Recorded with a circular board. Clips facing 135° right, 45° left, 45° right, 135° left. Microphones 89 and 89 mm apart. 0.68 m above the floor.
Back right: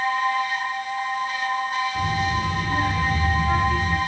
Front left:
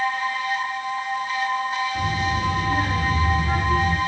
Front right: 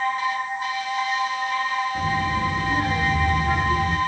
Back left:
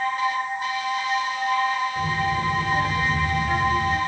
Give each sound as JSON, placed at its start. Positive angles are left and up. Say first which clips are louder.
{"t": 1.9, "sound": "a child speaking", "louder": "even, front right 1 dB", "azimuth_deg": -45, "distance_m": 5.0}